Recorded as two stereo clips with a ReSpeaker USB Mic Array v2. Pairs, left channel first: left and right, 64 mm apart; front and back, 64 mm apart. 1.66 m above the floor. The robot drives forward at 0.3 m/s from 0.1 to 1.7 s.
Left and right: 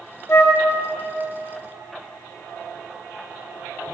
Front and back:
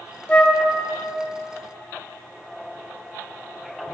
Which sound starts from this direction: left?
A flute, at 0.3 s.